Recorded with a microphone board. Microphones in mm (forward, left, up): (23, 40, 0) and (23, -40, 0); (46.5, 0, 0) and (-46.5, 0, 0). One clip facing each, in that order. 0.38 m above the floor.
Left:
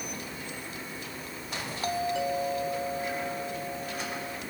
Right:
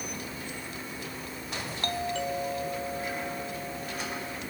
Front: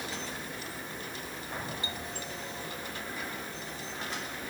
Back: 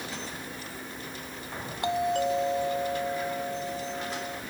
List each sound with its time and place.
1.8 s a doorbell: 170° left